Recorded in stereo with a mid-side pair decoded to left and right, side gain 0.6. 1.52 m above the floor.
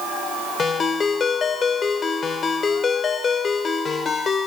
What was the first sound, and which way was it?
A ringtone, 30° left.